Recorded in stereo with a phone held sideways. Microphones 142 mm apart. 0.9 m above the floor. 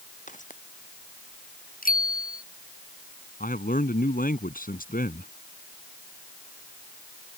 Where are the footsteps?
65° left (ahead or behind).